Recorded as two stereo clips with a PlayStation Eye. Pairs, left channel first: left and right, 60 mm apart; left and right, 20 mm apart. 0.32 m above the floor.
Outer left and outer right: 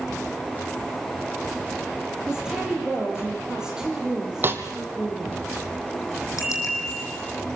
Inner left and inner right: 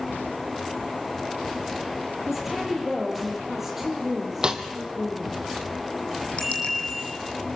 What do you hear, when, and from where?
2.3 s a woman speaking: 10° right (ahead or behind), 7 m
4.4 s a snare drum: 40° right (ahead or behind), 2 m
6.4 s a bicycle bell: 65° left (ahead or behind), 8.5 m